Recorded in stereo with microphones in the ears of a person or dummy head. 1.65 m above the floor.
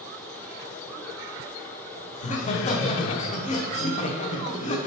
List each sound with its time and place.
2.1 s laughter: 40° left (ahead or behind), 0.7 m